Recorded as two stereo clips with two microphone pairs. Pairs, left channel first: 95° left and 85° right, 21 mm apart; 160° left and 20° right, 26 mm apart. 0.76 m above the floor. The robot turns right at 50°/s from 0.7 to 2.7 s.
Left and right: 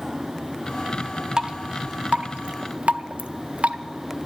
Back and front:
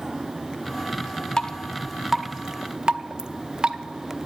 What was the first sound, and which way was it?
Dripping, 140° right.